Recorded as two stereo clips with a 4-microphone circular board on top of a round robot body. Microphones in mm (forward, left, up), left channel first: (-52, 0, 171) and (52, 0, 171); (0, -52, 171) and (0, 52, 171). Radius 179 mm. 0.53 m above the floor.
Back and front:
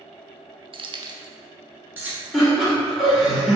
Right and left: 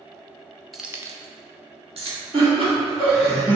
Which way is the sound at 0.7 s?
Straight ahead.